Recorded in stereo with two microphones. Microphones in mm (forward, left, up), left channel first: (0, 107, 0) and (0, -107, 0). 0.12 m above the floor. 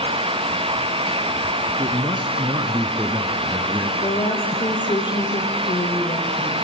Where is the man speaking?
25° right (ahead or behind), 1.7 m; by 3.9 s 10° right (ahead or behind), 1.9 m.